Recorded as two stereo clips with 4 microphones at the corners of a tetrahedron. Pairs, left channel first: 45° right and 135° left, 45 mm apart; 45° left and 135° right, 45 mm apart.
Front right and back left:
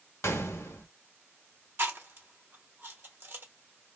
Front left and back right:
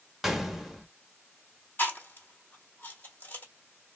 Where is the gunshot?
50° right, 0.7 m.